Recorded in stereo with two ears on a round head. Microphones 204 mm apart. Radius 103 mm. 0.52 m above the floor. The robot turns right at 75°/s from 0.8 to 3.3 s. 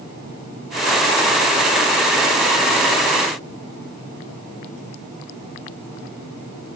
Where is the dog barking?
I don't hear a dog barking.